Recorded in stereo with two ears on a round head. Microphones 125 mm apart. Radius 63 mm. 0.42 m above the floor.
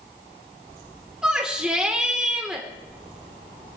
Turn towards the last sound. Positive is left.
turn(degrees=-5)  # may be behind; listen again after turning